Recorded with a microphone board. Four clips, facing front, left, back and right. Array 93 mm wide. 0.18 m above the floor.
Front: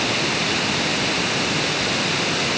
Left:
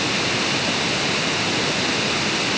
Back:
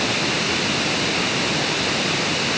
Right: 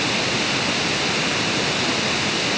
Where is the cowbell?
I don't hear a cowbell.